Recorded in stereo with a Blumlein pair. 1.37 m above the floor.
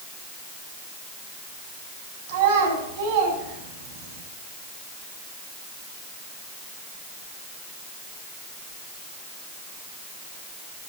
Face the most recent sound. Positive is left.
turn(degrees=-45)